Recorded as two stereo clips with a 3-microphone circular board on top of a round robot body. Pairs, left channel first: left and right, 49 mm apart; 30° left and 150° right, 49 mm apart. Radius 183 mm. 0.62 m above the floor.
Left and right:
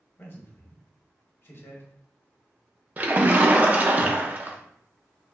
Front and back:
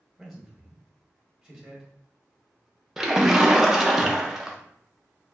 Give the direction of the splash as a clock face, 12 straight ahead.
2 o'clock.